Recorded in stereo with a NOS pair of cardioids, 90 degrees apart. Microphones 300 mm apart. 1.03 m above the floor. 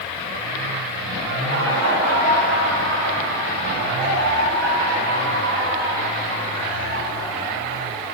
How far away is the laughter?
About 2.5 m.